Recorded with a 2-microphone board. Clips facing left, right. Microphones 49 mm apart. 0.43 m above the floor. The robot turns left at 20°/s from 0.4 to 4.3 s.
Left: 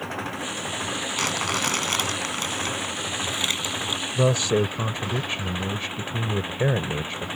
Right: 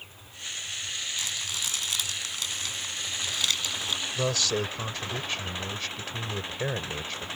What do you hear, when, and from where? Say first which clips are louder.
0.0 s an engine running: left 14 dB; 95° left; by 7.4 s 20° left
1.2 s crumpling: left 12 dB; 70° left; by 4.0 s 15° left
4.2 s a man speaking: left 8 dB; 25° left (ahead or behind); by 7.3 s 20° left (ahead or behind)